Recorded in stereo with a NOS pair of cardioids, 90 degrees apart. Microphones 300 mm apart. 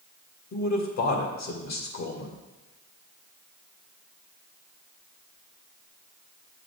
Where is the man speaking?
60° left, 2.5 m.